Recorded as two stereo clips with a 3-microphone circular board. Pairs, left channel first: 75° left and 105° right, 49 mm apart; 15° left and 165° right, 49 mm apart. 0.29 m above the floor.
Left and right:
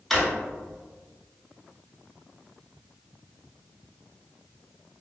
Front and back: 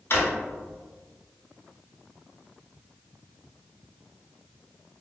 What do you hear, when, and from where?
0.1 s a drawer: 10° right, 0.9 m